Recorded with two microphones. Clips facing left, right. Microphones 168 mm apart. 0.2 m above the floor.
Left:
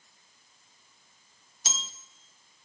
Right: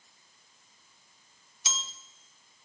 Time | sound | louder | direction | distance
1.6 | a bell | even | 45° left (ahead or behind) | 1.0 m